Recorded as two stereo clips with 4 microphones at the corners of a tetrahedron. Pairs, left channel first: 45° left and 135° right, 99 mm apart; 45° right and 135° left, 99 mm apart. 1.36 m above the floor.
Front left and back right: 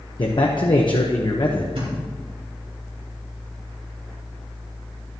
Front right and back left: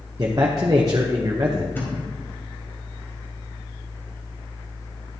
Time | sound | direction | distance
0.2 | a man speaking | 85° left | 0.9 m
1.8 | a thud | 115° right | 3.5 m